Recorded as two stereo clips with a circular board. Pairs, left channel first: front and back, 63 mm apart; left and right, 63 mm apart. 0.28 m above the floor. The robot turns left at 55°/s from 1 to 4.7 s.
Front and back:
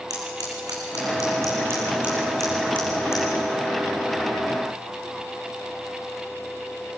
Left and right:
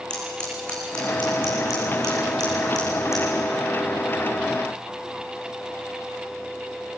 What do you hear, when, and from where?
0.1 s scissors: 165° left, 5 m; by 3.2 s 40° left, 5 m